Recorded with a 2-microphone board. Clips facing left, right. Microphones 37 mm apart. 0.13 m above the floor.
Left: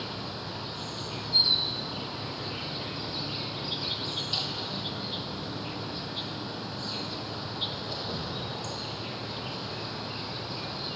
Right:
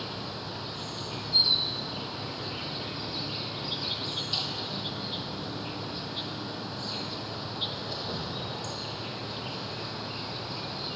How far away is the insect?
About 2.5 m.